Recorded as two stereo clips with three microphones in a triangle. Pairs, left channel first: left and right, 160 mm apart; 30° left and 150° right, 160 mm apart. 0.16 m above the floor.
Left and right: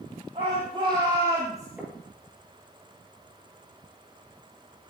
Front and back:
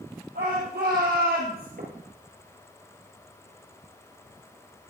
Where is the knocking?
170° right, 4 m.